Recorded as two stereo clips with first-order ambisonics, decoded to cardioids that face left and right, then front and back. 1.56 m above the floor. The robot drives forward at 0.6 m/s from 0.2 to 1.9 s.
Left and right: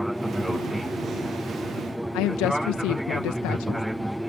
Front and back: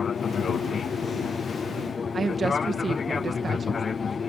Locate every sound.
0.0 s an aircraft: 5° right
2.1 s a woman speaking: 105° left